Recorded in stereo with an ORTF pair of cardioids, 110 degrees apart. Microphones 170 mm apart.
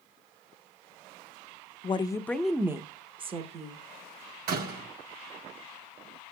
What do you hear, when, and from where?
1.8 s a woman speaking: 35° left, 0.6 m; by 3.8 s 45° right, 1.2 m
4.5 s a door slam: 60° right, 1.3 m